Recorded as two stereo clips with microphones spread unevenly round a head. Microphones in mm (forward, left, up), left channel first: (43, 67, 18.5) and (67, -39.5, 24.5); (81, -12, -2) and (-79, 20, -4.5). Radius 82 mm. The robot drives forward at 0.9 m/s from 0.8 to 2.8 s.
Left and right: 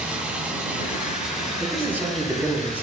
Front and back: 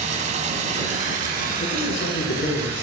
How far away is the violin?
No violin in this recording.